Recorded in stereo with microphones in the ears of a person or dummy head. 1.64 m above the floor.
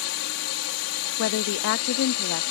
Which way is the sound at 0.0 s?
70° left (ahead or behind).